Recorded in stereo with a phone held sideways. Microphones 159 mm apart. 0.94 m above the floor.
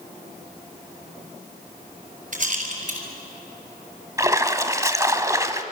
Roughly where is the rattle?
Right.